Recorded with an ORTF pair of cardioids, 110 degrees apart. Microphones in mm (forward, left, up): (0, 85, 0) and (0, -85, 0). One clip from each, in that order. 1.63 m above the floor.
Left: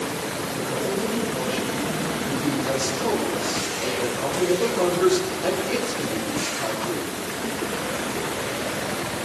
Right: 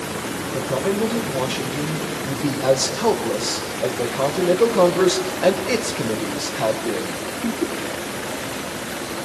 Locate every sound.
0.5 s a man speaking: 60° right, 6 m